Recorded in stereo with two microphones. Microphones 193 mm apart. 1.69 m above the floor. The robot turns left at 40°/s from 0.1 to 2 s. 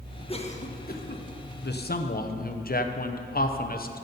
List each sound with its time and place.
0.3 s a cough: 30° left (ahead or behind), 1.3 m; by 1.2 s 60° left (ahead or behind), 1.3 m
1.6 s a man speaking: 60° left (ahead or behind), 0.9 m; by 4.0 s 50° left (ahead or behind), 0.9 m